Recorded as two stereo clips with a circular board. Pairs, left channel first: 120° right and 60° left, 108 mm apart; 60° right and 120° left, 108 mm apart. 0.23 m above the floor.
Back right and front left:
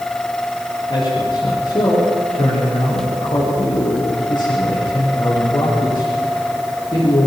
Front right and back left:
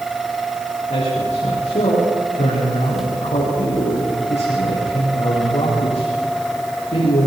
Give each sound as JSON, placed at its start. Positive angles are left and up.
{"t": 0.9, "sound": "a man speaking", "azimuth_deg": -75, "distance_m": 7.0}